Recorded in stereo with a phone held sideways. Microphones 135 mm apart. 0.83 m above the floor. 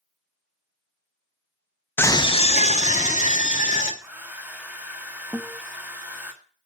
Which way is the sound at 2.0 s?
15° left (ahead or behind).